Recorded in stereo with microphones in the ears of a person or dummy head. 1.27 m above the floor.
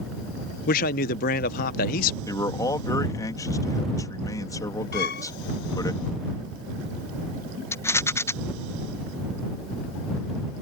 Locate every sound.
0.7 s a man speaking: 50° left (ahead or behind)
2.3 s a man speaking: 15° left (ahead or behind)
4.9 s a violin: 65° left (ahead or behind)
7.7 s a rattle: 15° left (ahead or behind)